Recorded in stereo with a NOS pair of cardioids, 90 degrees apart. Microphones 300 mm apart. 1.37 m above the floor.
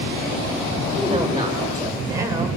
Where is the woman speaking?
15° right, 6.5 m; by 2.5 s 10° right, 6 m.